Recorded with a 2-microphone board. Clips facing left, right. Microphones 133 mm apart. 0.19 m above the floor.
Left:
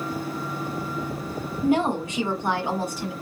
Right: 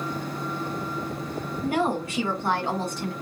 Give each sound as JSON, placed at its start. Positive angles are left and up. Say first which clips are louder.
{"t": 1.6, "sound": "a woman speaking", "louder": "left 4 dB", "side_deg": 25, "distance_m": 1.4}